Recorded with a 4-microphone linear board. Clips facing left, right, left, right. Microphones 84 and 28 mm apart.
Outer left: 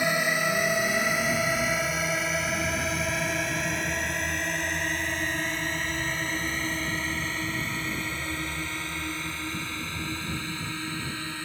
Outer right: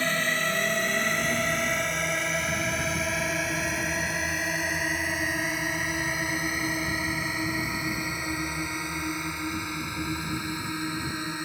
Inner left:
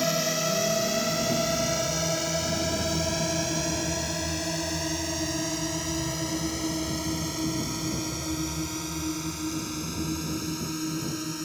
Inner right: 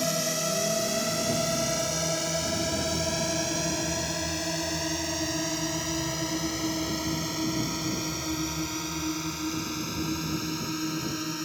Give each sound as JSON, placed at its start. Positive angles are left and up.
{"t": 0.0, "sound": "a drone", "side_deg": 15}